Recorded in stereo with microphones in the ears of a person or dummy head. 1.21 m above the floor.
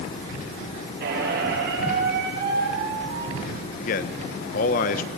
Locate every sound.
1.0 s a squeak: 60° right (ahead or behind), 7 m
3.8 s a man speaking: 50° left (ahead or behind), 1.2 m